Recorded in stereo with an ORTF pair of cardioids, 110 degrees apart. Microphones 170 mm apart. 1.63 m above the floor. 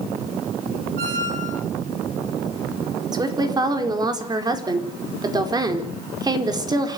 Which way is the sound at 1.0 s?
55° right.